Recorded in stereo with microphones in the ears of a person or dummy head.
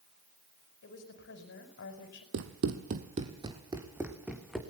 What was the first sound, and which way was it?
A woman speaking, 60° left (ahead or behind).